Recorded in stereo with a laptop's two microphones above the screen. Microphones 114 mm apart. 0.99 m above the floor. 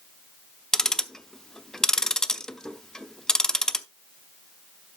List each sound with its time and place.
0.7 s ticking: 5° left (ahead or behind), 0.6 m